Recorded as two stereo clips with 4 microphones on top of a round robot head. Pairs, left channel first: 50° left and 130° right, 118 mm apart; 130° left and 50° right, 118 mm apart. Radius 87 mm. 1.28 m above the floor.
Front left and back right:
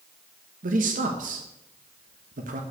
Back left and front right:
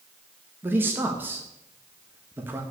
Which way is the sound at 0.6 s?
125° right.